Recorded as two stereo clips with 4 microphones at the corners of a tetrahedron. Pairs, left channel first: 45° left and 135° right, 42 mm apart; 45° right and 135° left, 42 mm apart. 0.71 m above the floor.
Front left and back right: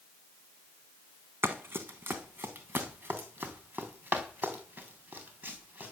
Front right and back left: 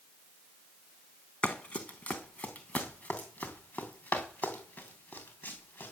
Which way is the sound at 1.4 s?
105° right.